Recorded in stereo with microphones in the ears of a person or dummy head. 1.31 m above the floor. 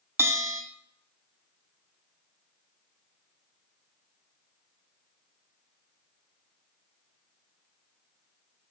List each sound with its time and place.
0.2 s a bell: 15° right (ahead or behind), 0.5 m